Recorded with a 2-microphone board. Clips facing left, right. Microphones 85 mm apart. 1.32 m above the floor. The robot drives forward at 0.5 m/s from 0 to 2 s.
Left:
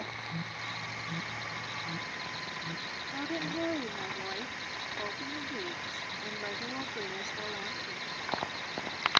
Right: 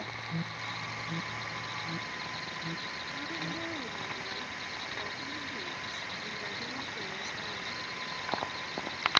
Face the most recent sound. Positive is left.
turn(degrees=50)  # may be behind; listen again after turning